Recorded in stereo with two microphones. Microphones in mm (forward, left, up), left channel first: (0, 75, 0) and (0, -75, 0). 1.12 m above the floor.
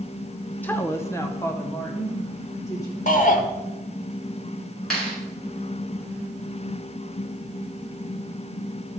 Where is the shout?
55° left (ahead or behind), 1.4 m.